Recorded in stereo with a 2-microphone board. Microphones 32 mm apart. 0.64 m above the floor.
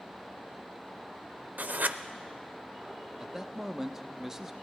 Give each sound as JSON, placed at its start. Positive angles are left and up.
{"t": 1.6, "sound": "writing", "side_deg": -65, "distance_m": 0.5}
{"t": 3.2, "sound": "a man speaking", "side_deg": -15, "distance_m": 0.7}